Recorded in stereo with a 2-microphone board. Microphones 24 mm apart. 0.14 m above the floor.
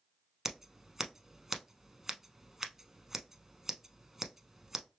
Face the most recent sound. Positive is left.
turn(degrees=-15)  # may be behind; listen again after turning